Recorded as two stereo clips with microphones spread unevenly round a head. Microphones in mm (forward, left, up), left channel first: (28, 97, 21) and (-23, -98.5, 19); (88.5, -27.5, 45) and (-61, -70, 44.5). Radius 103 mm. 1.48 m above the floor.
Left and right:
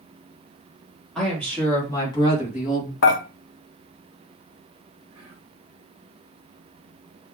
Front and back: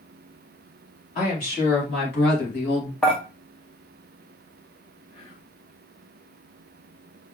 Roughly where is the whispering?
Ahead right.